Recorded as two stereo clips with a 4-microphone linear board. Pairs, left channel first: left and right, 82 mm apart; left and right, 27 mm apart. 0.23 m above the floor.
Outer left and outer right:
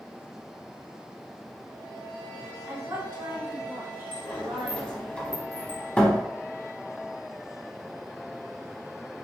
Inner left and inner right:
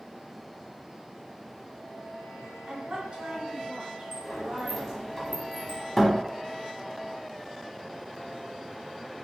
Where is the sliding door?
15° left (ahead or behind), 0.7 m.